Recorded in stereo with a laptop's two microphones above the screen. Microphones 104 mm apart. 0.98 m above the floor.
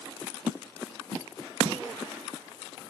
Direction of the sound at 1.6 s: 45° right (ahead or behind).